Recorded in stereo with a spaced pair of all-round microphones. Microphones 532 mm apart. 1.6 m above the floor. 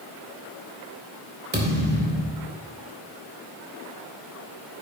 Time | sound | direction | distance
1.5 | a thud | 20° right (ahead or behind) | 3 m